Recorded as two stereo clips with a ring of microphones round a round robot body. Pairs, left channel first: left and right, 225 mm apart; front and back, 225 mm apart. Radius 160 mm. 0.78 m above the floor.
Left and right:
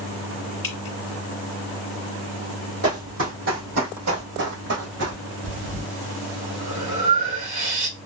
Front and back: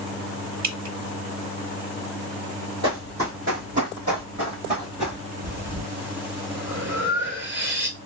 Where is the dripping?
135° left, 1.0 m.